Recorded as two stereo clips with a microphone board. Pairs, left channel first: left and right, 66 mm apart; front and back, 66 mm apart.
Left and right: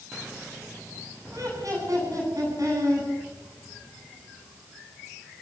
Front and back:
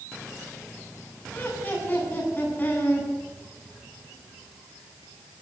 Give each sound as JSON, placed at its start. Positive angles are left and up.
{"t": 1.3, "sound": "laughter", "azimuth_deg": -60, "distance_m": 10.0}